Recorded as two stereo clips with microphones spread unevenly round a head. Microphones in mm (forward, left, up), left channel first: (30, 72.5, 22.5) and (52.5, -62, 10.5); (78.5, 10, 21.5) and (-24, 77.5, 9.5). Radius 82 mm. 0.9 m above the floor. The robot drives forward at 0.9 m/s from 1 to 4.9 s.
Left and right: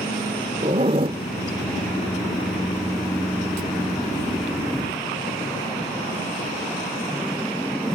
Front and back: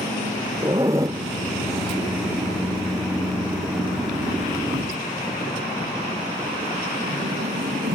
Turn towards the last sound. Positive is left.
turn(degrees=-170)